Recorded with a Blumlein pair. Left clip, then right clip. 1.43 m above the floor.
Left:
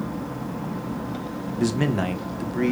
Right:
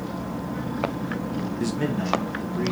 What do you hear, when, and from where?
1.6 s a man speaking: 10° left, 0.7 m; by 2.7 s 60° left, 1.0 m